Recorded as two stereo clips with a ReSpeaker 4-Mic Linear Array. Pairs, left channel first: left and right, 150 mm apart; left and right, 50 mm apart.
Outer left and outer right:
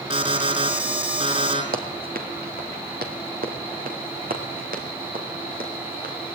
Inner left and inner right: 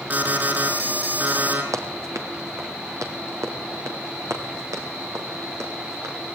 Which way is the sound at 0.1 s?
40° right (ahead or behind).